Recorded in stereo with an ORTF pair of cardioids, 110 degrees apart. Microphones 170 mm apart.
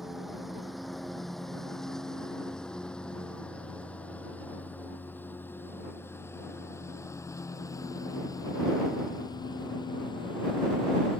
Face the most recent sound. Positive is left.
turn(degrees=30)